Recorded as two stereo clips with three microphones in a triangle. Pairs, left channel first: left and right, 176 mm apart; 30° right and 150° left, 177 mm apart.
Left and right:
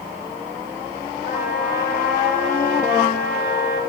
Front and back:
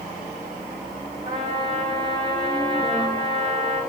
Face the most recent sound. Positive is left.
turn(degrees=95)